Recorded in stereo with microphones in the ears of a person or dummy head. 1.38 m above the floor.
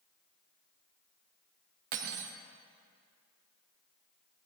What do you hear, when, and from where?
1.9 s cutlery clinking: 50° right (ahead or behind), 0.9 m